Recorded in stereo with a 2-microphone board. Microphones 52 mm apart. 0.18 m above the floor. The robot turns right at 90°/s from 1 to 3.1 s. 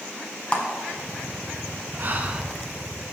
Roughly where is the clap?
Left.